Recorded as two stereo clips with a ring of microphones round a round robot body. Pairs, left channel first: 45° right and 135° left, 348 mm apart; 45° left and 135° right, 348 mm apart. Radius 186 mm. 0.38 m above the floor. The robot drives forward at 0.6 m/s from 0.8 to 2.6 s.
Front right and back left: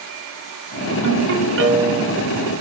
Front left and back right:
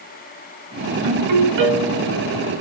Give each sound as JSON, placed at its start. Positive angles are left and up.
{"t": 1.0, "sound": "a ringtone", "azimuth_deg": -170, "distance_m": 3.5}